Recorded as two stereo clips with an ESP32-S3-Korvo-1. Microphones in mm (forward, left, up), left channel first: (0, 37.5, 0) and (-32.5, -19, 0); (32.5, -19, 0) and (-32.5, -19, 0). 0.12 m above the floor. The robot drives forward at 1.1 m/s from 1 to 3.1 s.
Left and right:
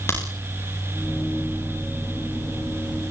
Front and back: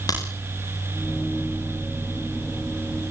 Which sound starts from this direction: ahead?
A crack, at 0.1 s.